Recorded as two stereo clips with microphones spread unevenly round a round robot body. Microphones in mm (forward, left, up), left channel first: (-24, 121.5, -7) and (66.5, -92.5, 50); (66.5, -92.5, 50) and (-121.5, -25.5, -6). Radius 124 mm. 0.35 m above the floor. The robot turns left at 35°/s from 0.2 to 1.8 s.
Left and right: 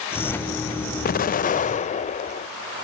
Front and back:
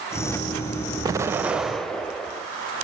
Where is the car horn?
I don't hear a car horn.